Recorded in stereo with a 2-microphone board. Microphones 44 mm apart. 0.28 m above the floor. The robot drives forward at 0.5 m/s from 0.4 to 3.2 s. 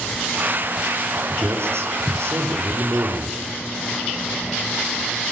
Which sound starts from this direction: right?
A man speaking, at 1.3 s.